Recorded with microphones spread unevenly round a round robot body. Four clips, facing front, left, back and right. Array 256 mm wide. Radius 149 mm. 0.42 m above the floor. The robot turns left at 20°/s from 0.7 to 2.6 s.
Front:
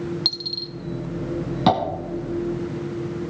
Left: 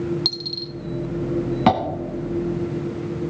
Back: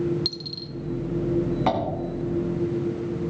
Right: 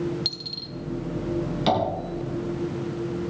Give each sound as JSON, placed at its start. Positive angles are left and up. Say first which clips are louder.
{"t": 0.2, "sound": "a dropped coin", "louder": "left 7 dB, front 1 dB", "azimuth_deg": 40, "distance_m": 0.9}
{"t": 1.7, "sound": "tapping", "louder": "left 5 dB, front 7 dB", "azimuth_deg": 50, "distance_m": 2.5}